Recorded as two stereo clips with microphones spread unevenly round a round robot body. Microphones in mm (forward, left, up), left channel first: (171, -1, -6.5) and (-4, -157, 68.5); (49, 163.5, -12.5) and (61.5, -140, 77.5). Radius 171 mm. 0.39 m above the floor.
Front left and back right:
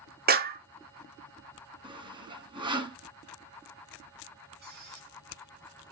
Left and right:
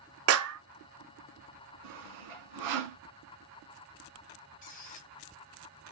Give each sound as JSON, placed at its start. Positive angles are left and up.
{"t": 0.3, "sound": "a clap", "azimuth_deg": -95, "distance_m": 0.6}
{"t": 1.8, "sound": "sawing", "azimuth_deg": -70, "distance_m": 0.8}
{"t": 4.6, "sound": "a squeak", "azimuth_deg": 160, "distance_m": 0.6}